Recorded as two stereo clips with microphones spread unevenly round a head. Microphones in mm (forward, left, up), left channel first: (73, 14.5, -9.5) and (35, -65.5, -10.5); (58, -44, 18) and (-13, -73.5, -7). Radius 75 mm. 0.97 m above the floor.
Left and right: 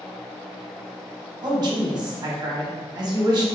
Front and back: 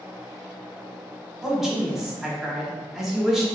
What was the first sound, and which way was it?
A man speaking, 75° right.